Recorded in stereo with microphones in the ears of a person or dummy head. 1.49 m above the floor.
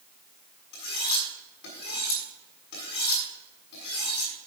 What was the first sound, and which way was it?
Cutlery clinking, 75° left (ahead or behind).